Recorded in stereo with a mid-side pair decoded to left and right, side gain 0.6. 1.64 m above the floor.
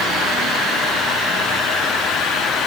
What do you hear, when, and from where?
Only background noise.